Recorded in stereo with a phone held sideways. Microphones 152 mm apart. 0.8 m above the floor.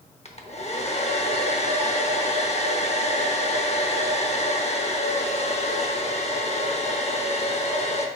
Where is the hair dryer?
45° left (ahead or behind), 0.7 m.